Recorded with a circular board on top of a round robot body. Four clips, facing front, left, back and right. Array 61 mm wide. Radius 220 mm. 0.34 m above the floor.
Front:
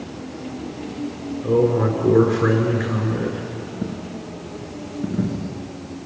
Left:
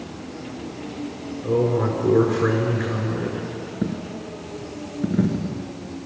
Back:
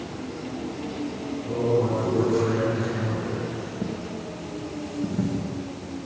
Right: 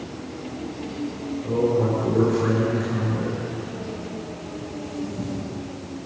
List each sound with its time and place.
1.4 s a man speaking: 30° left, 5.5 m
3.8 s a dropped coin: 80° left, 1.4 m